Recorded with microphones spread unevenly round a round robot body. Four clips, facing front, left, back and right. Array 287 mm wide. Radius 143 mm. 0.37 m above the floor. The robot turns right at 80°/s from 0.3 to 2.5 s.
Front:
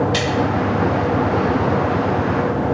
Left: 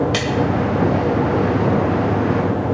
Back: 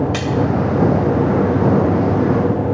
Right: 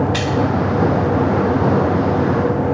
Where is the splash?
100° left, 3.5 m.